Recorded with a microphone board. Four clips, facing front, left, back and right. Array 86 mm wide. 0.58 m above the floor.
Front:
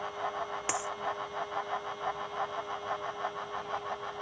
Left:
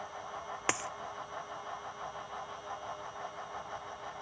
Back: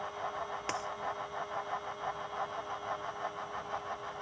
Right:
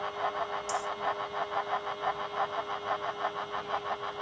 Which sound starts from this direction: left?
A dropped coin, at 0.7 s.